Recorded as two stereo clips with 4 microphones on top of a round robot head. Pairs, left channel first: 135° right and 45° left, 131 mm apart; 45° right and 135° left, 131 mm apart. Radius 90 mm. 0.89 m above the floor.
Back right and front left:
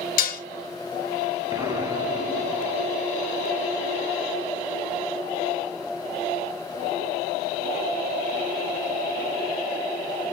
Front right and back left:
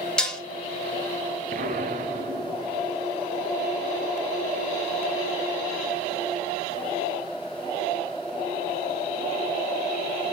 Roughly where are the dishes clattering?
Behind right.